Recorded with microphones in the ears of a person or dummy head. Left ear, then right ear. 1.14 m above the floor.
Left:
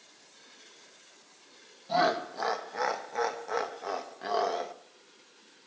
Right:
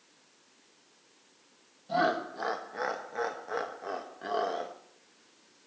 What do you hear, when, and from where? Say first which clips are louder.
1.9 s laughter: left 2 dB; 25° left (ahead or behind), 1.4 m